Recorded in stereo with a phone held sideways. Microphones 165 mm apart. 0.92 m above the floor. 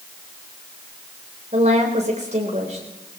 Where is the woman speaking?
45° right (ahead or behind), 3 m.